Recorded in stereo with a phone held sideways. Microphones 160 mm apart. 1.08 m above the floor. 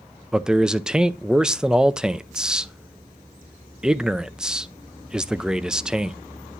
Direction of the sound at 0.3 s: 5° right (ahead or behind).